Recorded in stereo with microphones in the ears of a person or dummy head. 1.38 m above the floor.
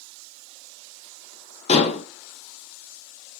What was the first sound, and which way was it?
Dishes clattering, 40° left (ahead or behind).